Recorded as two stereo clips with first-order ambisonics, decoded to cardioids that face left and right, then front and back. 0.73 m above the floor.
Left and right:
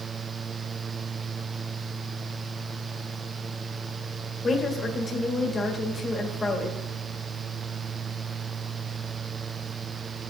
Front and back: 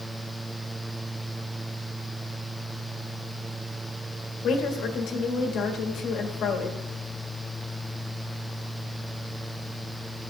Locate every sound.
4.4 s a woman speaking: 20° left, 1.3 m